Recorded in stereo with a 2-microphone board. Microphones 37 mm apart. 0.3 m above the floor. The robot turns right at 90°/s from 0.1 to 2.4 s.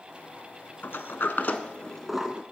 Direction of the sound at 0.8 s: 65° left (ahead or behind).